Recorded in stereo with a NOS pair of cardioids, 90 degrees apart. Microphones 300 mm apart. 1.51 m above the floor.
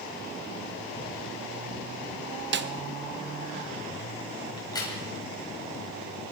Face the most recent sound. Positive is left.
turn(degrees=15)